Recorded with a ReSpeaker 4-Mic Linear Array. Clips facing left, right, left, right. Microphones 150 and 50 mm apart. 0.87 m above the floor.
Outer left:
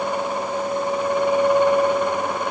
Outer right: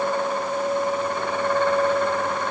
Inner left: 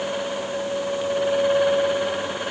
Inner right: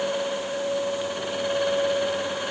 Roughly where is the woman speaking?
No woman speaking in this recording.